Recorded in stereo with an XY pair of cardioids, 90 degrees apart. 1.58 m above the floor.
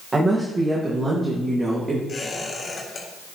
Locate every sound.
0.1 s a woman speaking: 30° right, 1.9 m
2.1 s a squeak: 50° left, 3.5 m